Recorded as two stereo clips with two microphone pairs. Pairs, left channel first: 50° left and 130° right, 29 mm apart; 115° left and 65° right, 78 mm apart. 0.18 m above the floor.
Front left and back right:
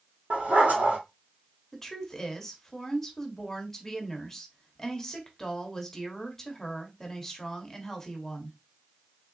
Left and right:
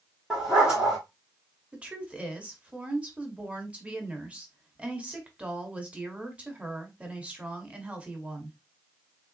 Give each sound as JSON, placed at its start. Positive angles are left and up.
{"t": 0.3, "sound": "a dog barking", "azimuth_deg": -145, "distance_m": 2.5}
{"t": 1.7, "sound": "a woman speaking", "azimuth_deg": -15, "distance_m": 1.1}